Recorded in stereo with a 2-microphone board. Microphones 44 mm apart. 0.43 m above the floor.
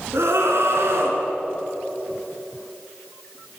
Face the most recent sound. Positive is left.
turn(degrees=-65)  # may be behind; listen again after turning